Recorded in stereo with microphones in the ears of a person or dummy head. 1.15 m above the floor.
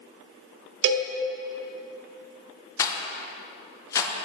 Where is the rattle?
15° left (ahead or behind), 0.8 m.